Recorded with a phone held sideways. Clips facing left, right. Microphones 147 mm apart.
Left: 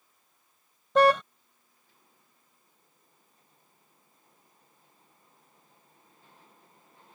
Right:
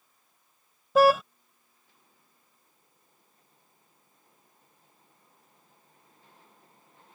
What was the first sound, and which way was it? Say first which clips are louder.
A car horn: right 1 dB; 5° right (ahead or behind).